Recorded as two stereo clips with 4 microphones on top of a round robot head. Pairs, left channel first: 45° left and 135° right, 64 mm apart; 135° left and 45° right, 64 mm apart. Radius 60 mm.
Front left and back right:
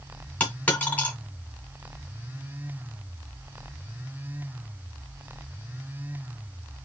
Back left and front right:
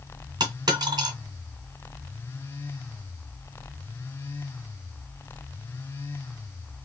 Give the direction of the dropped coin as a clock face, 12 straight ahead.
1 o'clock.